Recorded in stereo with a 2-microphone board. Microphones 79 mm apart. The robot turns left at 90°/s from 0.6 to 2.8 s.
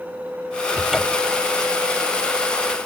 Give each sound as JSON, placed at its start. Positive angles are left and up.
{"t": 0.8, "sound": "a cupboard door", "azimuth_deg": -160}